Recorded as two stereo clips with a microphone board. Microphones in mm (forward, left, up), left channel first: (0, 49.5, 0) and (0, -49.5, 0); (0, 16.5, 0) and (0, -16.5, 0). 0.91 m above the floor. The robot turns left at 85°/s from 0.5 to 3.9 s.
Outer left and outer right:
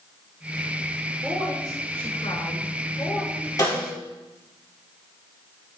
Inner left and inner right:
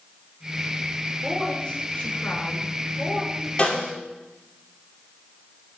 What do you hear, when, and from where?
1.2 s a woman speaking: 175° right, 3 m; by 3.5 s 10° right, 3 m
3.6 s a snare drum: 35° left (ahead or behind), 4.5 m; by 3.9 s 60° left (ahead or behind), 4.5 m